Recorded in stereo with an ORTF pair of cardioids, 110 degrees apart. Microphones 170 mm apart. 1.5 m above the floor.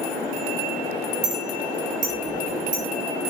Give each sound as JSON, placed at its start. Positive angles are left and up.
{"t": 1.2, "sound": "a clink", "azimuth_deg": -45, "distance_m": 5.0}